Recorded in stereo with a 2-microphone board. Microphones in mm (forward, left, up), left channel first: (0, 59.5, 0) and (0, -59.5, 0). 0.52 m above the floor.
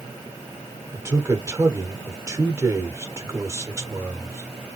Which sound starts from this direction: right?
A man speaking, at 0.9 s.